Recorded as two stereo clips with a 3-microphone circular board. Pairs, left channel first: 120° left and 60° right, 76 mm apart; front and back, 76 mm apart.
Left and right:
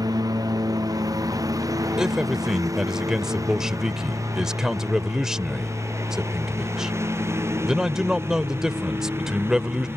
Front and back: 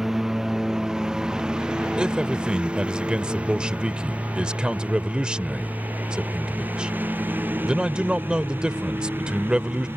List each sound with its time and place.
0.0 s a lawn mower: 95° right; by 10.0 s 120° right
2.0 s a man speaking: 130° right